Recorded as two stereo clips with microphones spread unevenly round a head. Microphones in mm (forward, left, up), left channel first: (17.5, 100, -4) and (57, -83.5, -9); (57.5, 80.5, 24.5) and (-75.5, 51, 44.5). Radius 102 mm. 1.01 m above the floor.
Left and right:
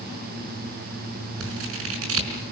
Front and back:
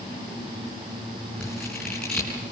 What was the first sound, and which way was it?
Scissors, 75° right.